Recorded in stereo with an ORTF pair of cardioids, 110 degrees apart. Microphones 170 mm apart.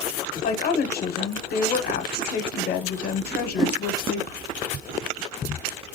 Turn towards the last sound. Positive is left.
turn(degrees=0)